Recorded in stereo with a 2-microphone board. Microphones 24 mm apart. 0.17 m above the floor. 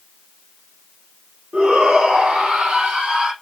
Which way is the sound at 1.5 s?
65° right (ahead or behind).